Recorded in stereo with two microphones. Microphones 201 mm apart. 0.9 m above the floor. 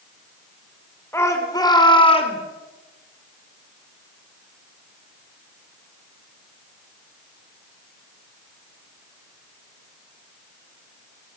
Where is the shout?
15° left (ahead or behind), 3 m; by 2.4 s 35° left (ahead or behind), 2.5 m.